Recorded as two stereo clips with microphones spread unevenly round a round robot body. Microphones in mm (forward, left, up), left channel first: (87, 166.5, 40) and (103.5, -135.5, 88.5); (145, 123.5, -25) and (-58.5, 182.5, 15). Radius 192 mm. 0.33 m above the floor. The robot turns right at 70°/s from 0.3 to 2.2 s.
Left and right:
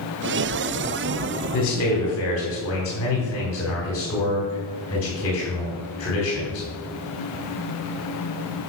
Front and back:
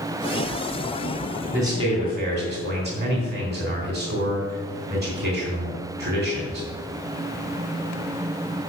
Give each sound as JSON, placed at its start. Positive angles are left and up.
{"t": 1.5, "sound": "a man speaking", "azimuth_deg": 75, "distance_m": 3.0}